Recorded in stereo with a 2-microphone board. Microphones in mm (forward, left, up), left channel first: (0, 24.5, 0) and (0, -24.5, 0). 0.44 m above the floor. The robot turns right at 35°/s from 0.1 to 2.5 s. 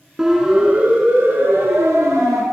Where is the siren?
10° right (ahead or behind), 5.5 m; by 2.4 s 80° right, 6.5 m.